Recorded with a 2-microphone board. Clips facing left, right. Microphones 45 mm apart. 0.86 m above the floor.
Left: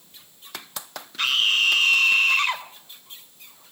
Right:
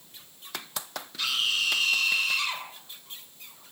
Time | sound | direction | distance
1.2 | a scream | 50° left (ahead or behind) | 3 m